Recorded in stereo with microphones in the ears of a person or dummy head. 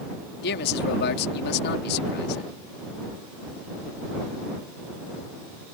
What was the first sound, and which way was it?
A man speaking, 55° left (ahead or behind).